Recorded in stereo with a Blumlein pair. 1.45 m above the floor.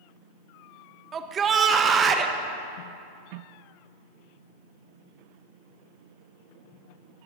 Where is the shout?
25° right, 1.1 m.